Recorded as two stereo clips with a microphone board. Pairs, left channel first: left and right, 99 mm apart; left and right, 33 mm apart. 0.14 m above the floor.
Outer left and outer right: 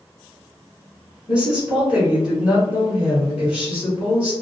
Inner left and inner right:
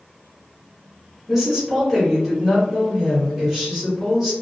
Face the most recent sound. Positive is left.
turn(degrees=-10)  # may be behind; listen again after turning